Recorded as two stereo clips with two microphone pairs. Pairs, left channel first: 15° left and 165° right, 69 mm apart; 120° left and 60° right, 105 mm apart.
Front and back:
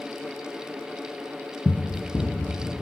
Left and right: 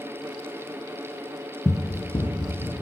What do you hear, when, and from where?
1.6 s running footsteps: 70° left, 0.5 m; by 2.8 s 80° left, 1.9 m